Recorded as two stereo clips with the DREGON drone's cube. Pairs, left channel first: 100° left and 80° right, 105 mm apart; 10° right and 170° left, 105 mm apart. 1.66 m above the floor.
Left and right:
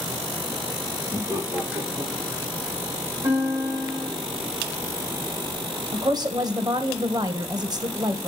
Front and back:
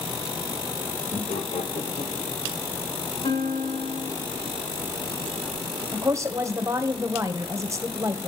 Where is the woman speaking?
130° right, 1.5 m.